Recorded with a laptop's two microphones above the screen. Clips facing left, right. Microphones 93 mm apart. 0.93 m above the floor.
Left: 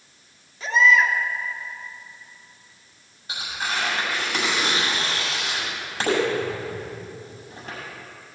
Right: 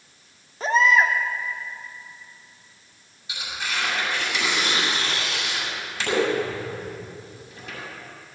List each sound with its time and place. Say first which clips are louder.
0.6 s a baby crying: even; 40° right (ahead or behind), 1.4 m
3.3 s tearing paper: left 2 dB; 45° left (ahead or behind), 6.5 m